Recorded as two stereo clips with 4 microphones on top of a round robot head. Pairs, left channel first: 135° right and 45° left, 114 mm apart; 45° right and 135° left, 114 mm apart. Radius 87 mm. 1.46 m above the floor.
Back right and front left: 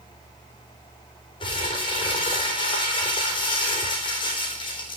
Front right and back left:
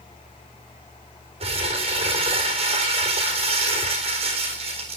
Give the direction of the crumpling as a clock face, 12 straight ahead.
6 o'clock.